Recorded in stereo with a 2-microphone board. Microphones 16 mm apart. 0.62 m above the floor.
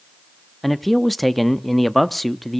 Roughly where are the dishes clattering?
I don't hear dishes clattering.